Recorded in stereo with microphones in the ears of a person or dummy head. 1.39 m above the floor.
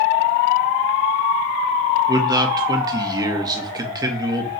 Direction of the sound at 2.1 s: 25° right (ahead or behind).